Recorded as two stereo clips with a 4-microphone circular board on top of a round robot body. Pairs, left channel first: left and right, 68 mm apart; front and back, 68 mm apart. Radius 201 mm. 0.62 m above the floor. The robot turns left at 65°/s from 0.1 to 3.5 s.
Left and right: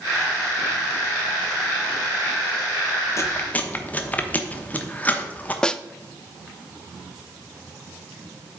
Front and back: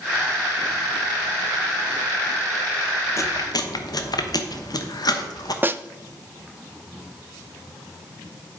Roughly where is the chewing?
Ahead left.